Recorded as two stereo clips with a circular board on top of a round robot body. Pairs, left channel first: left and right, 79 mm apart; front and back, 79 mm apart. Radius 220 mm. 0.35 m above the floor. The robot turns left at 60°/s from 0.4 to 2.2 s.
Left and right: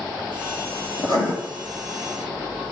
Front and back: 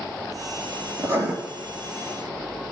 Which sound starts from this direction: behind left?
Writing, at 1.0 s.